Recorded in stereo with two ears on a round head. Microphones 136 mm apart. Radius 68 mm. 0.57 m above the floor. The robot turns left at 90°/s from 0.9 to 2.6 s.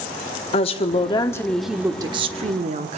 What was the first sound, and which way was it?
A woman speaking, 65° left.